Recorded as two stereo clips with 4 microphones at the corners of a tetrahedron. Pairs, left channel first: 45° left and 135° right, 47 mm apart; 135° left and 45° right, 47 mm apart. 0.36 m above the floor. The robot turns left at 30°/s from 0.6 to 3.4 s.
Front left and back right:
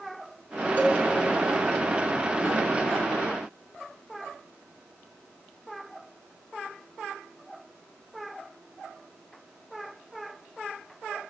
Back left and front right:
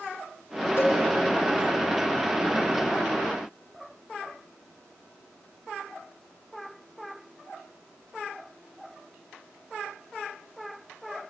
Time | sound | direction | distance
0.8 | a cowbell | 95° left | 6.5 m